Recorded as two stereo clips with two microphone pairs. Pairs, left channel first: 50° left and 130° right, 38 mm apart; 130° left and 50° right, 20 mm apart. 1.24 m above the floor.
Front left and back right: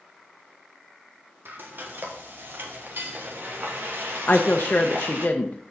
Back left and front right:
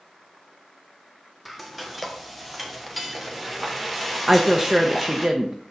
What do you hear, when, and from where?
1.4 s frying: 135° right, 1.2 m
4.3 s a woman speaking: 5° left, 0.7 m